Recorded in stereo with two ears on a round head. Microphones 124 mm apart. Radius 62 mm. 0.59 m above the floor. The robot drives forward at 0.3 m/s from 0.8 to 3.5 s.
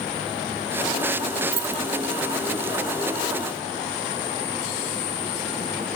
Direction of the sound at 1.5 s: 45° right (ahead or behind).